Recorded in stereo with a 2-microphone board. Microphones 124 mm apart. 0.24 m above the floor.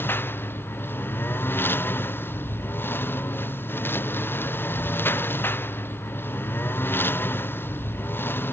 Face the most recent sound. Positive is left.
turn(degrees=20)  # may be behind; listen again after turning